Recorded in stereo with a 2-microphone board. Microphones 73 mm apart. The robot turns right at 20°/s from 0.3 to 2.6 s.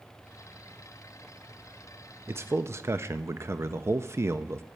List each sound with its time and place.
2.3 s a man speaking: 35° right (ahead or behind), 0.5 m; by 4.7 s 40° right (ahead or behind), 0.5 m